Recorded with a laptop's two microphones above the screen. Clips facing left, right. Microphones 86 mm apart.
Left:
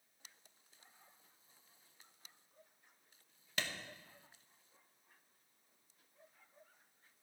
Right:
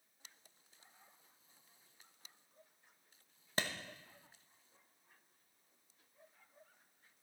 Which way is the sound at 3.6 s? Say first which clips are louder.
Right 3 dB; 35° right (ahead or behind).